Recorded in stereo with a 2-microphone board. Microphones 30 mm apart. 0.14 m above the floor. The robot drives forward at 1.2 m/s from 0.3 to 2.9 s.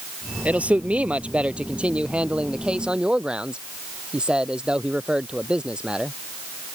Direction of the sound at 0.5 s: 60° right (ahead or behind).